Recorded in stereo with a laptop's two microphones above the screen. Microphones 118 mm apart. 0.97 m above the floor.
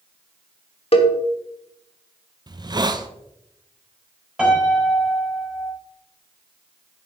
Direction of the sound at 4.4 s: 5° right (ahead or behind).